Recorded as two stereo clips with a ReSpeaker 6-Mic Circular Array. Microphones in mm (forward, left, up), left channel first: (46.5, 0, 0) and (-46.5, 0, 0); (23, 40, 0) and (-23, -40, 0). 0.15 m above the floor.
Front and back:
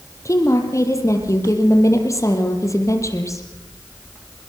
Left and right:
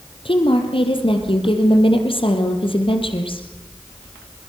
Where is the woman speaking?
55° left, 4 m.